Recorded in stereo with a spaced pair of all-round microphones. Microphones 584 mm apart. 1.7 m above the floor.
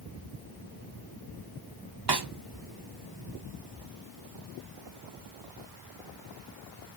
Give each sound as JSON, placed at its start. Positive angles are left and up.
{"t": 2.1, "sound": "a snare drum", "side_deg": -40, "distance_m": 0.9}